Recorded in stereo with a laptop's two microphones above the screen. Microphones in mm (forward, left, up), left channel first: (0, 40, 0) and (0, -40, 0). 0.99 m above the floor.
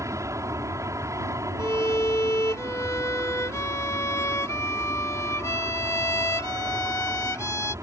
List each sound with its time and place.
0.0 s an aircraft: 40° right (ahead or behind)
1.6 s a violin: 40° left (ahead or behind)